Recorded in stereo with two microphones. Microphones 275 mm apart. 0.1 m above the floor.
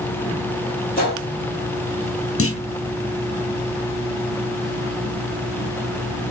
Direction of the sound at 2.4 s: 50° left (ahead or behind).